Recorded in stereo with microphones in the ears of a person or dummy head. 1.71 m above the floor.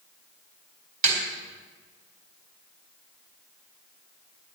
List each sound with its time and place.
1.0 s a snare drum: 45° right (ahead or behind), 4 m